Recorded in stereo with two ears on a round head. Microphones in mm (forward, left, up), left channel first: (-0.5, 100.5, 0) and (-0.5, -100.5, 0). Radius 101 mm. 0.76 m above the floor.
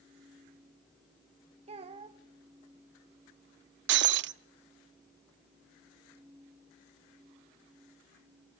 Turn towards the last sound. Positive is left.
turn(degrees=-50)  # may be behind; listen again after turning